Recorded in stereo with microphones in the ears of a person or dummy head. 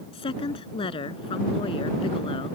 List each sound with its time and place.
0.1 s a woman speaking: 30° left (ahead or behind)